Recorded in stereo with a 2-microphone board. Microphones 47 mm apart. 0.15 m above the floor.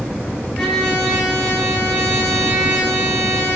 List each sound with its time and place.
0.6 s a trumpet: 20° left (ahead or behind), 8 m